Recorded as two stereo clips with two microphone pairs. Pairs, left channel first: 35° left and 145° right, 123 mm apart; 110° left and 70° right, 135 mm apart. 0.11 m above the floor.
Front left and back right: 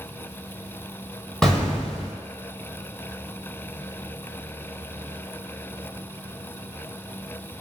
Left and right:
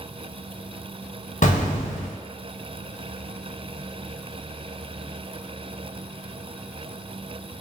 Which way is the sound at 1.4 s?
115° left.